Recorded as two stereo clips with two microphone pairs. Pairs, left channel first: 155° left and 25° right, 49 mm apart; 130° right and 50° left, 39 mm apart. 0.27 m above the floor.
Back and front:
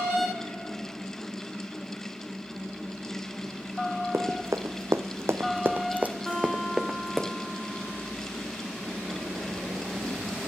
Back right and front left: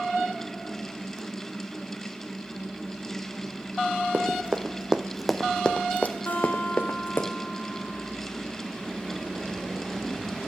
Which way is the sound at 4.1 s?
Straight ahead.